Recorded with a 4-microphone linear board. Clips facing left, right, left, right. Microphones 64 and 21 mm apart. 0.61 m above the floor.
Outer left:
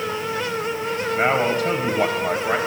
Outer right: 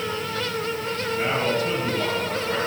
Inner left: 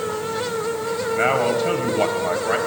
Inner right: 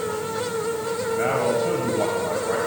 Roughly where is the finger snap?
No finger snap in this recording.